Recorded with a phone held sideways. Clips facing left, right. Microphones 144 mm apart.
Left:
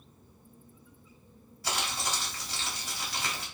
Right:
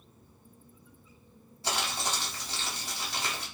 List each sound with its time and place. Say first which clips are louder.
1.6 s crumpling: right 1 dB; 25° right (ahead or behind), 1.6 m